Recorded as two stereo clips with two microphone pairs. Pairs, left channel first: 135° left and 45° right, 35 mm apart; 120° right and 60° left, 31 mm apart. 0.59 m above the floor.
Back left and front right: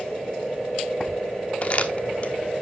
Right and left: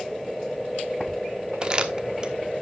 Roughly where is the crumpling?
Left.